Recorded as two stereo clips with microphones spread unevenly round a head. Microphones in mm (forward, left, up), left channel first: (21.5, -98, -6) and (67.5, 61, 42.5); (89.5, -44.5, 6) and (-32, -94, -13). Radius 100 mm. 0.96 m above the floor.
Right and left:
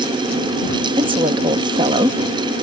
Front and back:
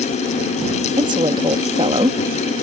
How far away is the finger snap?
No finger snap in this recording.